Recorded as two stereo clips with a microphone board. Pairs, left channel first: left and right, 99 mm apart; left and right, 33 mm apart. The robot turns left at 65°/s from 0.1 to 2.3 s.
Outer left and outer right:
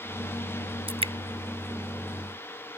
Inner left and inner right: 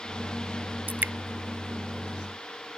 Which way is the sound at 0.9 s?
70° right (ahead or behind).